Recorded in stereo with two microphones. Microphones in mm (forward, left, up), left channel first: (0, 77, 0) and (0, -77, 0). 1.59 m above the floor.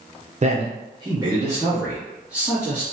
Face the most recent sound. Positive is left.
turn(degrees=-5)  # may be behind; listen again after turning